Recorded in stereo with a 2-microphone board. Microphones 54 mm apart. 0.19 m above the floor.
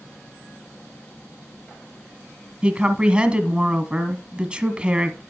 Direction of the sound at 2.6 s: 20° right (ahead or behind).